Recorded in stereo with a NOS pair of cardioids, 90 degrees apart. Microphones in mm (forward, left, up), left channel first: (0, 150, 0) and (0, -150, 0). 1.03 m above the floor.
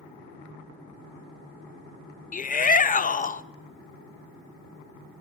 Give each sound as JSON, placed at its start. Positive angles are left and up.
{"t": 2.3, "sound": "a shout", "azimuth_deg": 25, "distance_m": 0.7}